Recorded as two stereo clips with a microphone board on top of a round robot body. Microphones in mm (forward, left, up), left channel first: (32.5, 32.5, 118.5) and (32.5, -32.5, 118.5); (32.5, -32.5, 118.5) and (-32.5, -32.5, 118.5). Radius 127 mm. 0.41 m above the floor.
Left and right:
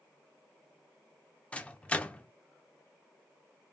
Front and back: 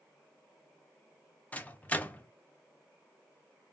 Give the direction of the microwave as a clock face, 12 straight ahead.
11 o'clock.